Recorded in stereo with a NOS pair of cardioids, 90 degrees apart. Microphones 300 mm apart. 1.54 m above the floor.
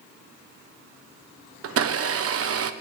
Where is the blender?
50° right, 1.2 m.